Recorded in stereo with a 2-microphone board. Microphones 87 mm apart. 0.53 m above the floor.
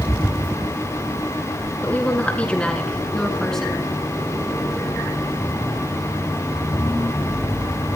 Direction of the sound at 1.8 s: 20° left (ahead or behind).